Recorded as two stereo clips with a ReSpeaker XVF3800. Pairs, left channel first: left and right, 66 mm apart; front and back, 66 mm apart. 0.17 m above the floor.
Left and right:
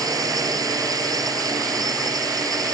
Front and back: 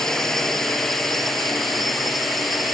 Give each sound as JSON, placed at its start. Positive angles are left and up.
{"t": 0.0, "sound": "a drone", "azimuth_deg": -85}